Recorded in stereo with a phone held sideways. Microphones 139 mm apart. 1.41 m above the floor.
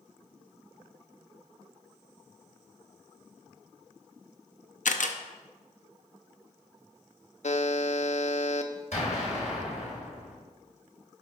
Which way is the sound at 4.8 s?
75° left (ahead or behind).